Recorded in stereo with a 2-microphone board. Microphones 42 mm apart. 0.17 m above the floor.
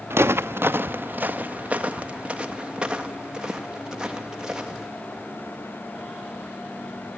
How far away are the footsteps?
About 0.8 m.